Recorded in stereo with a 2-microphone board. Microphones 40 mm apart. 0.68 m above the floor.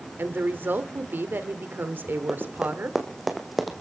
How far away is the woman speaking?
About 2 m.